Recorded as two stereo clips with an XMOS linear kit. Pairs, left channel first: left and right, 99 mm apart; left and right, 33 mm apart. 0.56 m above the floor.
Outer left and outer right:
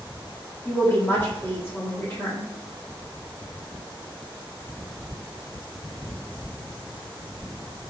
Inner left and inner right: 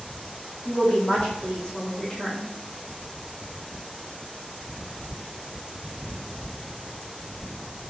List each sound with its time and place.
0.7 s a woman speaking: 20° left (ahead or behind), 1.2 m